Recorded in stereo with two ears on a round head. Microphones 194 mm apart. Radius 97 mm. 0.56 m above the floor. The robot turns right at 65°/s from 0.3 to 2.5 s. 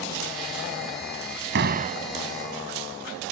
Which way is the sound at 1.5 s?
55° right.